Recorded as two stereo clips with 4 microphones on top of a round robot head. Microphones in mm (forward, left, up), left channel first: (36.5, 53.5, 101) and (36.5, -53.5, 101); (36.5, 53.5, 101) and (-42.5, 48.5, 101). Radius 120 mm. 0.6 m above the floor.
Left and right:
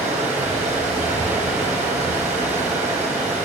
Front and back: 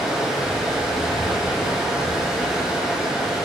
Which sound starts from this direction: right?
Running water, at 0.0 s.